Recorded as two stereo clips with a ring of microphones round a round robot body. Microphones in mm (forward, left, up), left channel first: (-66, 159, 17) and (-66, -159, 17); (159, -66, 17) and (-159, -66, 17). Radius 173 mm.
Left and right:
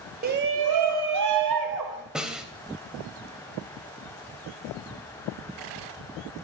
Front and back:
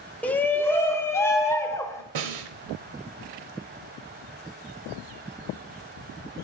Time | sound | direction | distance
0.2 | a shout | 80° right | 0.7 m
2.1 | a snare drum | straight behind | 0.8 m